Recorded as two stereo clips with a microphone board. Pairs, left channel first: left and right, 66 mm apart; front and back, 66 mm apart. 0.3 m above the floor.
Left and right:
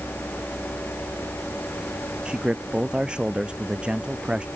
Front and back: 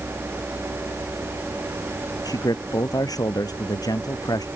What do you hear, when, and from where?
2.2 s a man speaking: 15° right